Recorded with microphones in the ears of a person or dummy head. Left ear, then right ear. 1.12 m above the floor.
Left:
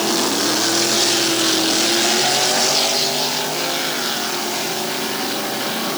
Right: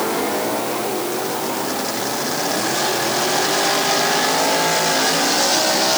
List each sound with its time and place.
Only background noise.